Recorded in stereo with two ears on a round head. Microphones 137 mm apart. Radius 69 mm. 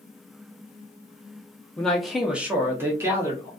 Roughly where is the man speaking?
Centre.